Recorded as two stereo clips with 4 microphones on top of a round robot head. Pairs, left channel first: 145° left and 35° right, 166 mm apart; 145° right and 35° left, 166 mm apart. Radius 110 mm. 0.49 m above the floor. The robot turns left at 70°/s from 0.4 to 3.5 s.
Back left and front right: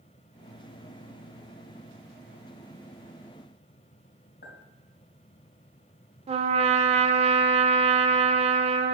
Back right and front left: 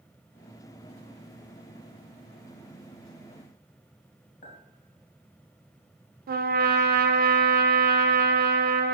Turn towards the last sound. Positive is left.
turn(degrees=15)